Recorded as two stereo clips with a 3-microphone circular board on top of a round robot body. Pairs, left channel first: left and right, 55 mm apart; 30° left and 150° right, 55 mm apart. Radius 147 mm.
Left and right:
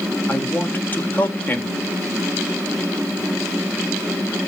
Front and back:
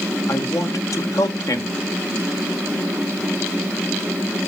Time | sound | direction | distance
0.3 | a man speaking | 35° left | 1.3 m